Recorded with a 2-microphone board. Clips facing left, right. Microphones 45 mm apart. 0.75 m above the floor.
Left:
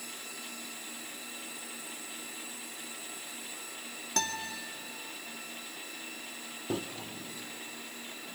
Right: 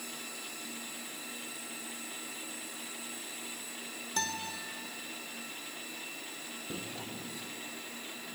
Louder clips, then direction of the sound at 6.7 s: Left 9 dB; 70° left (ahead or behind).